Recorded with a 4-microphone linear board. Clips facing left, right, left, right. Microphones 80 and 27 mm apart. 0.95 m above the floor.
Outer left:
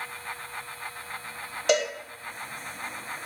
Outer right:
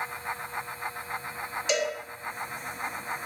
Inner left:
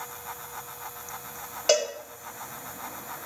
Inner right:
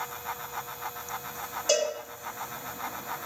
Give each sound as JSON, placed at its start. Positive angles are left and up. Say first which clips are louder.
{"t": 1.7, "sound": "a cowbell", "louder": "outer left 4 dB, inner left 2 dB", "side_deg": 55, "distance_m": 1.1}